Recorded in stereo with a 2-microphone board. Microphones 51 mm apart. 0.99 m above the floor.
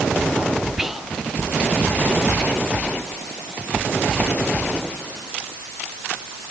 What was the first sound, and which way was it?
Whispering, 5° right (ahead or behind).